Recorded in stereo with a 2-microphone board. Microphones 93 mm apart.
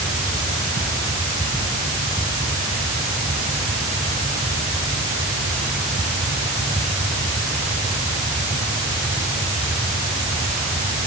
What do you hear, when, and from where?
Only background noise.